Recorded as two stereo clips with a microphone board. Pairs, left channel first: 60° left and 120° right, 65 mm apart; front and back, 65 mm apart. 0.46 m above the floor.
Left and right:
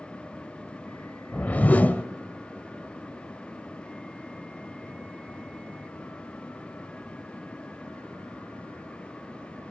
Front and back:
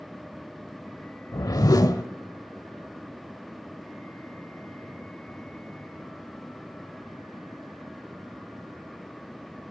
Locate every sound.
1.3 s a whoosh: 5° right, 0.8 m